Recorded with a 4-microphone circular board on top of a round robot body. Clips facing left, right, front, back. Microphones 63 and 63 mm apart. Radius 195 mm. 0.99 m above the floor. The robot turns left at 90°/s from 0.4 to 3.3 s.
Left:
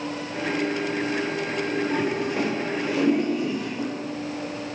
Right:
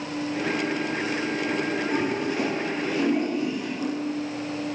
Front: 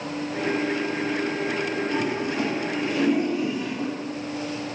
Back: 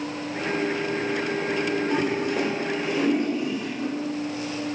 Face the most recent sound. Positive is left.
turn(degrees=65)